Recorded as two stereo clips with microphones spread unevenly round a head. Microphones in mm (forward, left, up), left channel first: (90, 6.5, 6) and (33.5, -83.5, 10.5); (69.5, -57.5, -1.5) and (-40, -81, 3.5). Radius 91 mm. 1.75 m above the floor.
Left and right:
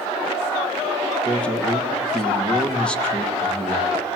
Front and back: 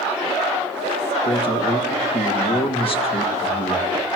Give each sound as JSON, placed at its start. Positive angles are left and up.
{"t": 1.2, "sound": "a man speaking", "azimuth_deg": -20, "distance_m": 3.5}